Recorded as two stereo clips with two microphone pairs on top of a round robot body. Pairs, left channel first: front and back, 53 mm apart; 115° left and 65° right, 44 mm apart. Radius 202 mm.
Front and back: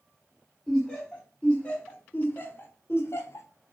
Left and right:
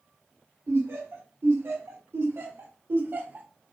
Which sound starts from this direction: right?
Laughter, at 0.7 s.